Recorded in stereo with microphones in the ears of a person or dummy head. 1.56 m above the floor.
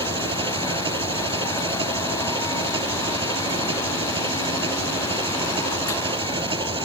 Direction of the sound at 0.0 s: 35° right (ahead or behind).